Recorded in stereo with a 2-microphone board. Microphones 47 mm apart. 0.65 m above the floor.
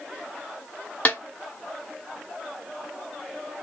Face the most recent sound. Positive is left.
turn(degrees=35)  # may be behind; listen again after turning